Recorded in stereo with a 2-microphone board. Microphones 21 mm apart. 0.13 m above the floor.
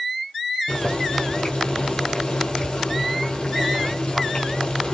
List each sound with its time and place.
0.7 s boiling: 55° left (ahead or behind), 1.0 m